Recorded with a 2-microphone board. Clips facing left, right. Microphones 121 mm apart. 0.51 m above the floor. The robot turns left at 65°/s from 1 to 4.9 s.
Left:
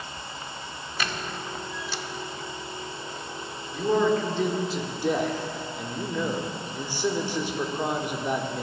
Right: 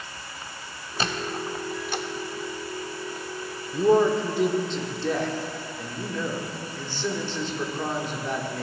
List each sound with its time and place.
1.0 s a squeak: 30° right (ahead or behind), 0.6 m; by 2.0 s 50° right (ahead or behind), 0.6 m
3.7 s a man speaking: 125° right, 1.0 m; by 8.6 s 160° left, 1.0 m